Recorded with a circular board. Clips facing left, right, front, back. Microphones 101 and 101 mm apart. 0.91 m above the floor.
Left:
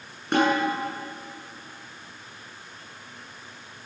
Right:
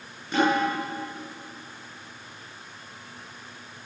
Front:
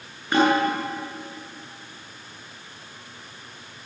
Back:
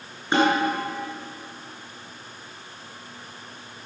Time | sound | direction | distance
0.3 | a snare drum | 115° left | 9.5 m